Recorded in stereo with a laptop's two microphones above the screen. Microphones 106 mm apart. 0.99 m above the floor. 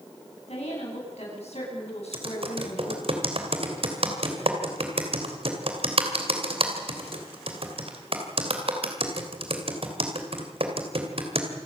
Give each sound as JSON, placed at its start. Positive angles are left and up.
{"t": 0.5, "sound": "a woman speaking", "side_deg": 80, "distance_m": 9.0}
{"t": 2.1, "sound": "typing on a keyboard", "side_deg": -65, "distance_m": 3.0}